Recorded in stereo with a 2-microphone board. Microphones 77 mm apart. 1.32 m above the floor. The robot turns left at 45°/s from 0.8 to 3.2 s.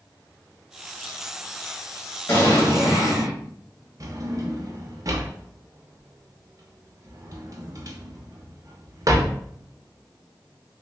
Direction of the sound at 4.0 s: 45° right (ahead or behind).